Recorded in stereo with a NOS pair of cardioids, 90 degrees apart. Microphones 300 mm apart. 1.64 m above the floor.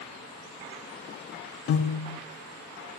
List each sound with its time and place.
1.7 s a piano: 45° left, 0.6 m